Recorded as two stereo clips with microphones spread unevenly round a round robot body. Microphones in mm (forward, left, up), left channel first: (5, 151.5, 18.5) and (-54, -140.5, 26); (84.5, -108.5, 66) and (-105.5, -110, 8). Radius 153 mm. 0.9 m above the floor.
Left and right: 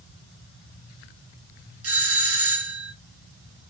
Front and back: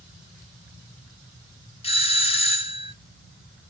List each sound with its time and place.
1.8 s a doorbell: 65° right, 1.4 m